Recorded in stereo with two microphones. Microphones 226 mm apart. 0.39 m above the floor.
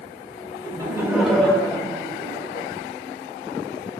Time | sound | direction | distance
0.6 | laughter | 20° right (ahead or behind) | 1.2 m